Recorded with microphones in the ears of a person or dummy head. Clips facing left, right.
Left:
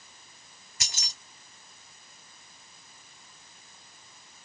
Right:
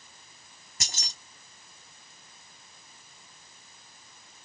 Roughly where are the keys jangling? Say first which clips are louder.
Right 2 dB; right.